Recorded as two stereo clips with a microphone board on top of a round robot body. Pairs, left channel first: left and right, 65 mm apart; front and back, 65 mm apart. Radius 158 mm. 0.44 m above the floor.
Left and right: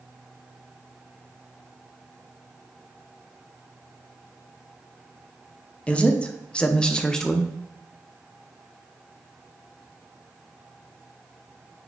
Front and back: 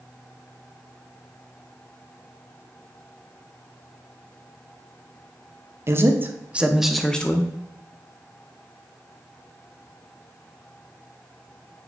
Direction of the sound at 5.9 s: 155° left.